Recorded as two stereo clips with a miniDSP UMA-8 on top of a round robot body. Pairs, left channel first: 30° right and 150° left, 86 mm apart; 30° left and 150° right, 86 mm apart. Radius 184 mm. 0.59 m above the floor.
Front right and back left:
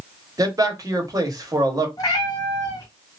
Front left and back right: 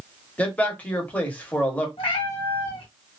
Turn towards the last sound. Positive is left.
turn(degrees=20)